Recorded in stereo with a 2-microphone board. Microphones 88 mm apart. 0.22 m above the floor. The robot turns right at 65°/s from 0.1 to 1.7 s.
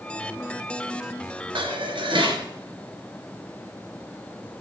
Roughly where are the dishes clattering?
Right.